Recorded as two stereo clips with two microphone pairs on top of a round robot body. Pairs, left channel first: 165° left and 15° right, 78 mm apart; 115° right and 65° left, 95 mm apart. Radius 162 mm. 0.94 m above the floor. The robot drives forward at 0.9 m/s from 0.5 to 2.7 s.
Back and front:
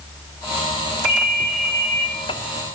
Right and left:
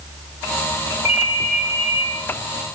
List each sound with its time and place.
1.1 s a ringtone: 95° right, 1.2 m; by 2.1 s 135° right, 1.6 m